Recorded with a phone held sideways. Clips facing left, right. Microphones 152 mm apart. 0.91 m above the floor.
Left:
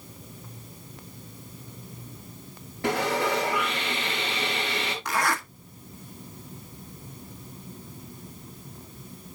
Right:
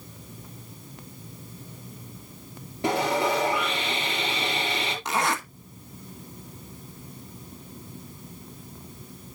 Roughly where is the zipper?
Right.